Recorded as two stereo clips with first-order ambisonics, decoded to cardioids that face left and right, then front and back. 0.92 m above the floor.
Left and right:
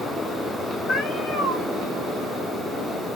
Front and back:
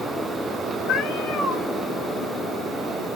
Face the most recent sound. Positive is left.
turn(degrees=40)